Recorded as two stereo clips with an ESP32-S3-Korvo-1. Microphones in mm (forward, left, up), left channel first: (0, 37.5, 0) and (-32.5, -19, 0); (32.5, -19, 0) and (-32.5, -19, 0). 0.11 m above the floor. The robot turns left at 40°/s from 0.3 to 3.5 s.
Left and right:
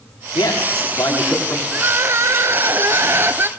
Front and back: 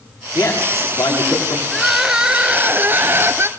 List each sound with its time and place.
0.3 s a man speaking: 50° left, 7.5 m; by 1.6 s straight ahead, 7.5 m
1.7 s crying: 85° right, 0.6 m; by 3.5 s 155° right, 0.6 m